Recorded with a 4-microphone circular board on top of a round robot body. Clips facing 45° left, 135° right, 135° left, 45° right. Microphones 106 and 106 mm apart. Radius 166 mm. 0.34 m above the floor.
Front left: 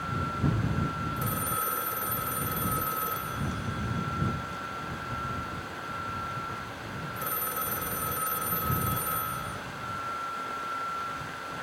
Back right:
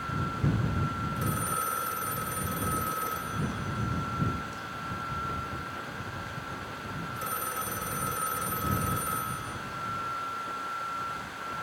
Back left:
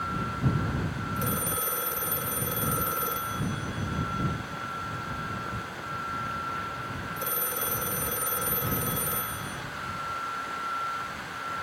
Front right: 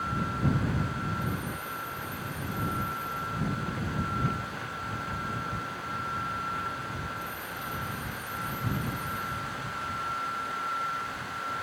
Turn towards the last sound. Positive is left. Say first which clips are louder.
# even, back left 3 dB
turn(degrees=135)